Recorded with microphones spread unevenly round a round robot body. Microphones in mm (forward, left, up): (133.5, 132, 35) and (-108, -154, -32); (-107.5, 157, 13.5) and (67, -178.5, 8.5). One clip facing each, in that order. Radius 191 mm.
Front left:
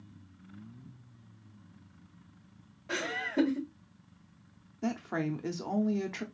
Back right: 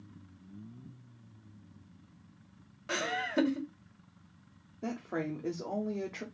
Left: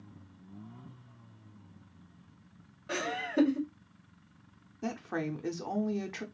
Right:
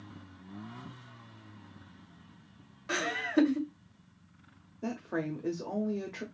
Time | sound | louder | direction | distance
2.9 | laughter | even, right 4 dB | 115° right | 2 m
4.8 | a woman speaking | front left 3 dB, right 1 dB | 110° left | 0.8 m